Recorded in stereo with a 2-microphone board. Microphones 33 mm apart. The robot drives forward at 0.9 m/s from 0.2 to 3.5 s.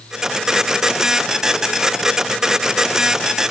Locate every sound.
Only background noise.